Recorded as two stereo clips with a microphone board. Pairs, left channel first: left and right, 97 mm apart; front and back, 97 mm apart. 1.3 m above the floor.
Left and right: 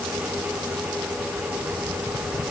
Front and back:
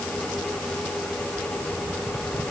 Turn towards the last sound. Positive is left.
No sound to turn to.